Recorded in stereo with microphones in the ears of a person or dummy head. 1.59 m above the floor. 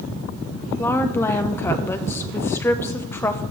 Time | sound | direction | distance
0.8 | a woman speaking | 15° left (ahead or behind) | 0.9 m